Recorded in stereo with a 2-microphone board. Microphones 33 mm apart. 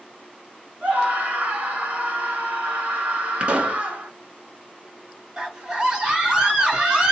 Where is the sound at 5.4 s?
25° right (ahead or behind), 1.1 m.